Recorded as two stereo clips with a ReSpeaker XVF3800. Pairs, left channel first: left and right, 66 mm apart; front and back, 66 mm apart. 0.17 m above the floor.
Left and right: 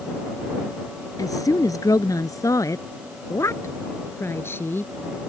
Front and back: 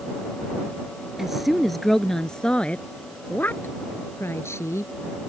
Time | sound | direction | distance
1.2 | a woman speaking | 95° left | ?